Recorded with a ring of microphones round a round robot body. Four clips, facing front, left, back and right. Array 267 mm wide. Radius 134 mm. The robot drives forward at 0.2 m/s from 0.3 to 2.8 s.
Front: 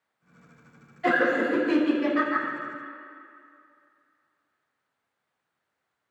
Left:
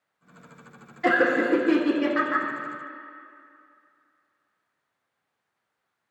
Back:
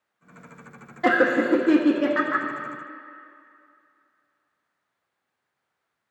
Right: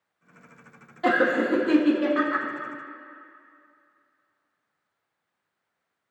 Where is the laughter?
155° right, 1.3 m; by 2.5 s 160° right, 1.6 m.